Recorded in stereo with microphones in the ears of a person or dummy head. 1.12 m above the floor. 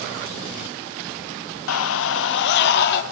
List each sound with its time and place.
1.7 s a scream: 80° left, 0.7 m; by 3.0 s 60° left (ahead or behind), 2.5 m